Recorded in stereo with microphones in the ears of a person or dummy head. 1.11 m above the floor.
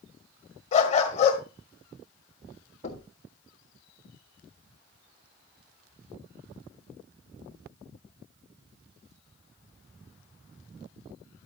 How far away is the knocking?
About 2.5 m.